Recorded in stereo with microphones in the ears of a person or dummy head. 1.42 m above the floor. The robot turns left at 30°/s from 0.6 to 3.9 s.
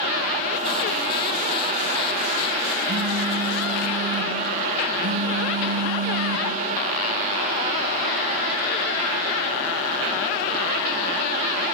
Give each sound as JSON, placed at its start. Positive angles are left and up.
{"t": 2.9, "sound": "a phone buzzing", "azimuth_deg": -55, "distance_m": 1.3}